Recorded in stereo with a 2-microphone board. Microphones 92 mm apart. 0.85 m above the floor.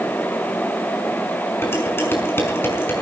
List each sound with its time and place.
1.6 s dishes clattering: 25° left (ahead or behind), 5 m